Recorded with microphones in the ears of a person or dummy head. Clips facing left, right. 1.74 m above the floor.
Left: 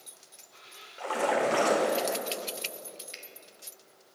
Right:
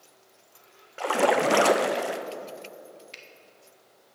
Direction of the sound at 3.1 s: 5° left (ahead or behind).